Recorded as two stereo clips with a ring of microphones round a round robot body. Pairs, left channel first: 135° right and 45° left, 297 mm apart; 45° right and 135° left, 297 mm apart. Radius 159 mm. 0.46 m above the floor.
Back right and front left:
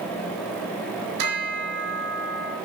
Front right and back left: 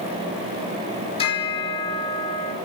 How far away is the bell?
About 4.5 m.